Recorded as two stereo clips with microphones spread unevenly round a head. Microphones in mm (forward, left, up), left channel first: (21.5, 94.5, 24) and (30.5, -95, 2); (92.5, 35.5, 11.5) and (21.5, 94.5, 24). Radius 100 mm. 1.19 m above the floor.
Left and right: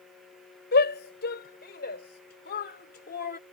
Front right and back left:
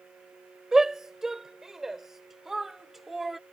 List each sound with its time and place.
0.7 s a shout: 55° left; by 3.4 s 50° left